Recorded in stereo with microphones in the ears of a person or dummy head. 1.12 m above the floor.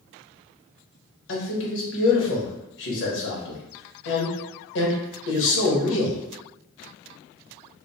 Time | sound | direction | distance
1.3 | a man speaking | 65° left (ahead or behind) | 1.2 m